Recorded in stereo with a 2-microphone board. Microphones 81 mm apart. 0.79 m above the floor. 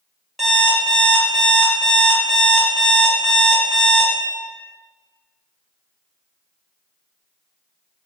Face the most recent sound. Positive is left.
turn(degrees=0)  # may be behind; listen again after turning